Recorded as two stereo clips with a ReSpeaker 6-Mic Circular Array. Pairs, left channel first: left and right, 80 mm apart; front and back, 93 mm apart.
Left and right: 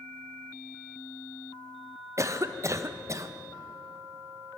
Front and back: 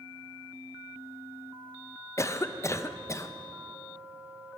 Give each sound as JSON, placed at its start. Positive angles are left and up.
{"t": 2.2, "sound": "a cough", "azimuth_deg": -50, "distance_m": 0.5}